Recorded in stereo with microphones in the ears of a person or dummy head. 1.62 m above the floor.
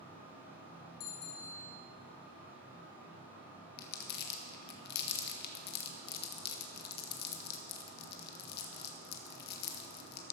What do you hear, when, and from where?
1.0 s a bicycle bell: 80° left, 3 m
3.8 s crumpling: 55° left (ahead or behind), 1.6 m